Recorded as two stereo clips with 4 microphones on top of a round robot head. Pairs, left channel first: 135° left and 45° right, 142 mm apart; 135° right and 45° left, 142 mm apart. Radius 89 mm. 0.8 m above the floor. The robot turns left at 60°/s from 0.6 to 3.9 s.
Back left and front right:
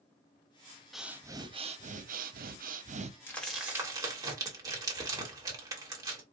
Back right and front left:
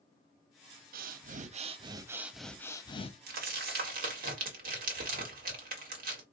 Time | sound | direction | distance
0.9 | breathing | 45° left | 0.6 m
3.3 | crumpling | 60° left | 1.5 m